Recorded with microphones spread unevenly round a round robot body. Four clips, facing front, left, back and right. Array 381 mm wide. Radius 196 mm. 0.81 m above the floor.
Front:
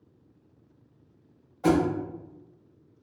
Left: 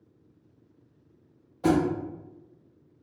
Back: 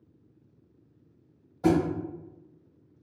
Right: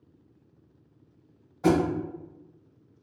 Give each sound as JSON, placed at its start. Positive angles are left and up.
{"t": 1.6, "sound": "a thud", "azimuth_deg": 175, "distance_m": 0.9}